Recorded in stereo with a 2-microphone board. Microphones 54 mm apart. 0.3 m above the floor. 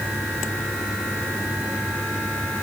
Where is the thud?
No thud in this recording.